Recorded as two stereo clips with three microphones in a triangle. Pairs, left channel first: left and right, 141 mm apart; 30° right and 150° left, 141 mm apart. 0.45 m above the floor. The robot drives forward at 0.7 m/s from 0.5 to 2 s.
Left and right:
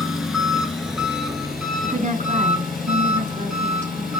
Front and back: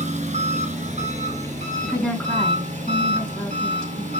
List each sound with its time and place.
0.0 s an engine running: 175° right, 2 m; by 4.2 s straight behind, 3 m
1.8 s a woman speaking: 110° right, 4.5 m; by 4.1 s 115° right, 4.5 m